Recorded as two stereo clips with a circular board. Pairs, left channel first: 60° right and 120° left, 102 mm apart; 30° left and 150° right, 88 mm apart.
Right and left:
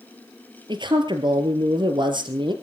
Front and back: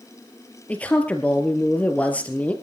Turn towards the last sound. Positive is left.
turn(degrees=100)